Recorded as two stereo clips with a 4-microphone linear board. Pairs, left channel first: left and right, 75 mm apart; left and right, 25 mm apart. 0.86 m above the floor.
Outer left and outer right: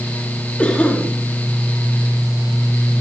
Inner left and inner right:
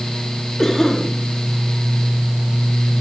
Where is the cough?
15° left (ahead or behind), 1.9 m.